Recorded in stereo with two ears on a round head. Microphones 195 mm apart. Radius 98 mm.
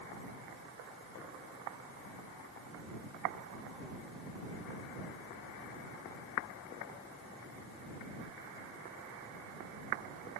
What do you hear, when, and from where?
Only background noise.